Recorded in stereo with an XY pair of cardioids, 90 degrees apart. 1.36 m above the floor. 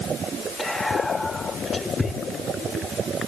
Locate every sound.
0.6 s whispering: 20° left, 3 m